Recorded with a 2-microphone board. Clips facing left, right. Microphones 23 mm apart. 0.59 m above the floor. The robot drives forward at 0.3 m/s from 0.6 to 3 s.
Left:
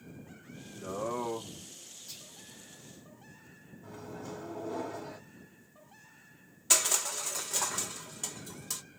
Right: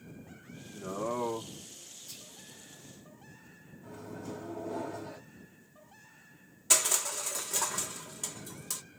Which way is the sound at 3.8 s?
20° left (ahead or behind).